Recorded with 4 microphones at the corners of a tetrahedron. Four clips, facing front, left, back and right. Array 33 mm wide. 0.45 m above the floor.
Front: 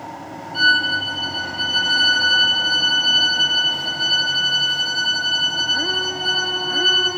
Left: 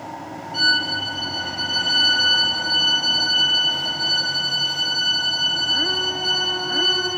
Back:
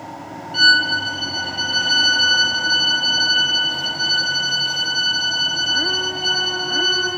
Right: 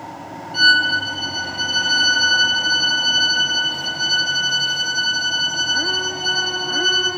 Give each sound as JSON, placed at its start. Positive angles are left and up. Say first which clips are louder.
{"t": 0.5, "sound": "a violin", "louder": "right 5 dB, back 2 dB", "azimuth_deg": -170, "distance_m": 2.5}